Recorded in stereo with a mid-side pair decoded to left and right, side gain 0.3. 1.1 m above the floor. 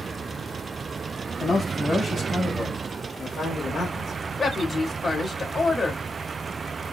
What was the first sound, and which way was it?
A man speaking, 50° left.